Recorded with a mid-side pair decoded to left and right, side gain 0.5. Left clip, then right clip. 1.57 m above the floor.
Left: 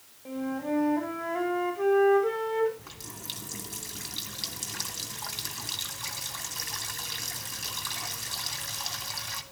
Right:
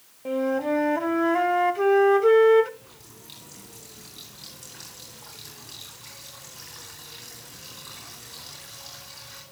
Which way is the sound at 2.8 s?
70° left.